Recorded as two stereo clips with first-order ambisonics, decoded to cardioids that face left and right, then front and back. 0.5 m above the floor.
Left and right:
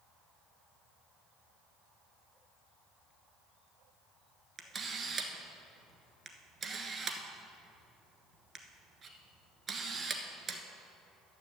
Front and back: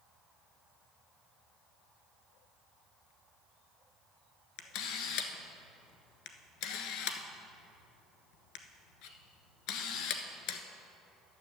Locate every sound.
4.6 s a camera shutter: 20° right, 1.1 m